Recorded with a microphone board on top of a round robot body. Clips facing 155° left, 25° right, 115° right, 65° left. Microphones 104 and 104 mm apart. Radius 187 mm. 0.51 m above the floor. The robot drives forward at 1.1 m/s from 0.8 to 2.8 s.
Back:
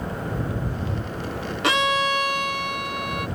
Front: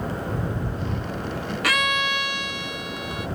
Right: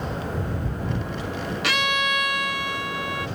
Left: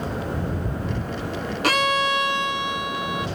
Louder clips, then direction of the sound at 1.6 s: Back 4 dB, left 5 dB; 100° left.